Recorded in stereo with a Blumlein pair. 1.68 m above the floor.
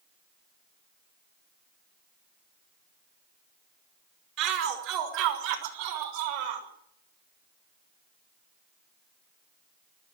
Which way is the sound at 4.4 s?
40° right.